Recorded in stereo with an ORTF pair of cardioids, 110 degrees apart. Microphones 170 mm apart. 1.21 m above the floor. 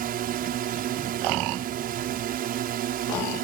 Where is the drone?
65° right.